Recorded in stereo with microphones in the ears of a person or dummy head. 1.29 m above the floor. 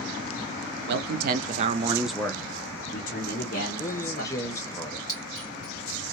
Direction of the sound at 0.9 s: 55° right (ahead or behind).